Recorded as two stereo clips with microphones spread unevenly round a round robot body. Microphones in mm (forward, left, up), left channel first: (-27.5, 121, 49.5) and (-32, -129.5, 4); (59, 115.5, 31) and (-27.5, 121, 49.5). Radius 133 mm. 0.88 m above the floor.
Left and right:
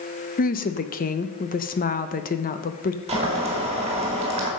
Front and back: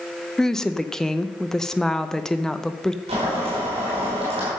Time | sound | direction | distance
0.4 | a woman speaking | 50° left | 0.7 m
3.1 | boiling | 160° right | 3.5 m